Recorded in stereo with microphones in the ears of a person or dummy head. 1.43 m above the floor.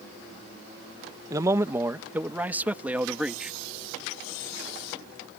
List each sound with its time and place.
1.3 s a man speaking: 20° right (ahead or behind); by 3.6 s 5° right (ahead or behind)